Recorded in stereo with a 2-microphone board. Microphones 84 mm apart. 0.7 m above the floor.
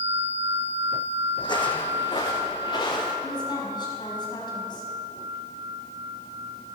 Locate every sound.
1.4 s footsteps: 60° left (ahead or behind), 1.4 m; by 3.1 s 75° left (ahead or behind), 4 m
3.2 s a woman speaking: 65° left (ahead or behind), 5 m